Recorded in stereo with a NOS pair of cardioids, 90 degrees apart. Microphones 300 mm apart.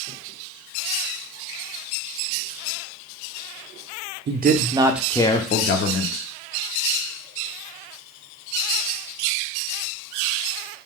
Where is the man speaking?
35° right, 0.8 m; by 6.3 s 60° left, 0.9 m.